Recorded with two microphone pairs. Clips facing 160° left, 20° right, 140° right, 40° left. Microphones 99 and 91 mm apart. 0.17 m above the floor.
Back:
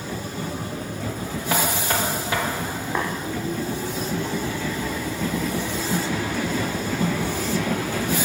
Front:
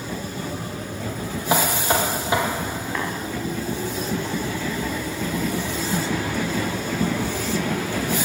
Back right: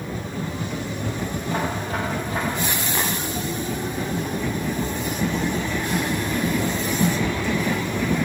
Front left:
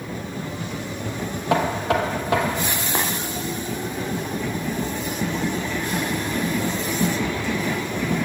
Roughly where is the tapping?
Left.